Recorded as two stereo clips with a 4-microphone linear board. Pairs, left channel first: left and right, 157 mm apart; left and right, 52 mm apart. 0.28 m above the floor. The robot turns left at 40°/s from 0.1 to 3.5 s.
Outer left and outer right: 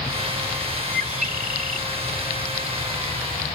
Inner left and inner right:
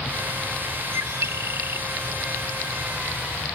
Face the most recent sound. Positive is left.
turn(degrees=180)